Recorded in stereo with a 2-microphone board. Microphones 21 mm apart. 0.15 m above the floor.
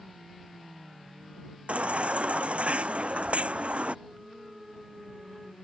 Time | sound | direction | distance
1.7 | a baby crying | 85° right | ?
4.0 | a flute | 20° right (ahead or behind) | ?